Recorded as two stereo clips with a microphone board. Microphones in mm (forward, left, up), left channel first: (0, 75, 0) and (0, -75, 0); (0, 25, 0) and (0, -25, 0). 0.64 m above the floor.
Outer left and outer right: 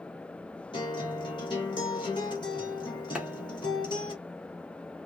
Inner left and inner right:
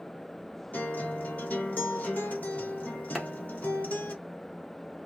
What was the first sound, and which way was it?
A guitar, 30° left (ahead or behind).